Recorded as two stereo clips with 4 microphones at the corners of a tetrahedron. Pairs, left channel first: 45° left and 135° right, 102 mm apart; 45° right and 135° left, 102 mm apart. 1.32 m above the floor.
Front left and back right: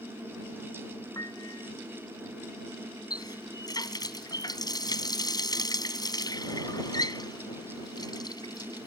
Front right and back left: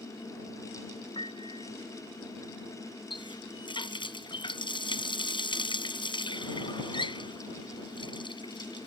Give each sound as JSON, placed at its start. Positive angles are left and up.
{"t": 1.1, "sound": "a piano", "azimuth_deg": -10}
{"t": 3.1, "sound": "a running tap", "azimuth_deg": -5}